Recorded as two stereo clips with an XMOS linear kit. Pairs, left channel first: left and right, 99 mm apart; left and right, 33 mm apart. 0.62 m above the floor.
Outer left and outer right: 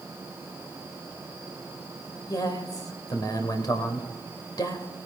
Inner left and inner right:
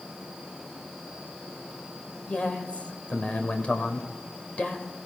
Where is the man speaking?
40° left (ahead or behind), 2.5 m.